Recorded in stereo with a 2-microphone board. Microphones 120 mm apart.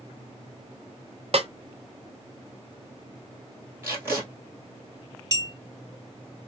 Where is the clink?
30° right (ahead or behind), 1.1 m.